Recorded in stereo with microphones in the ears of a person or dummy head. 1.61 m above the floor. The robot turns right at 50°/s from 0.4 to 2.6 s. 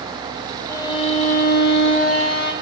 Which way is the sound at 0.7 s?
20° left.